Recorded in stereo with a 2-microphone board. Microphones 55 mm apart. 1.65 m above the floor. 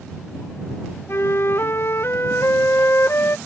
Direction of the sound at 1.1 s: 50° left (ahead or behind).